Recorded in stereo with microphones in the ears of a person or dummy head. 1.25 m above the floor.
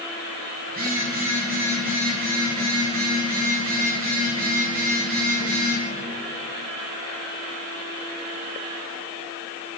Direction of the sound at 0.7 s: 45° right (ahead or behind).